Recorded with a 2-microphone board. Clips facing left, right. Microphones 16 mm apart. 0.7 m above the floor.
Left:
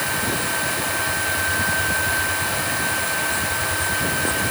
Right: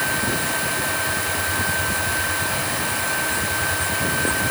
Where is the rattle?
I don't hear a rattle.